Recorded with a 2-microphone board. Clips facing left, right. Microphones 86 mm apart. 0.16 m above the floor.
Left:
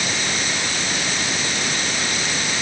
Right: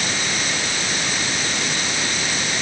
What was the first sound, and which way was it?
Only background noise.